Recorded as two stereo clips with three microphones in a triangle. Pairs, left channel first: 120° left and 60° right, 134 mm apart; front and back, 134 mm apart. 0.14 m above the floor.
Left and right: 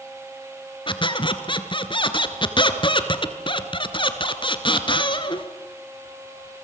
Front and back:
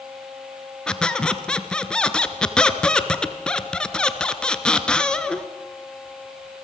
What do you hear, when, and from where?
0.9 s a squeak: 80° left, 1.3 m